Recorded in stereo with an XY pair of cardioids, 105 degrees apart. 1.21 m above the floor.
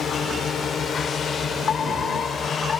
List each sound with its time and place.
0.0 s a drone: 50° left; by 2.8 s 40° left
1.7 s a fire alarm: 45° left